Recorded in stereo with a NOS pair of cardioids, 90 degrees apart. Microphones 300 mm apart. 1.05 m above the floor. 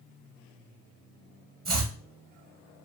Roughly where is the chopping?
Ahead right.